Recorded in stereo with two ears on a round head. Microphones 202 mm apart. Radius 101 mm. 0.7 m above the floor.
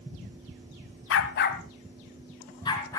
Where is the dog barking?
60° left (ahead or behind), 1.2 m; by 3.0 s 15° left (ahead or behind), 3 m.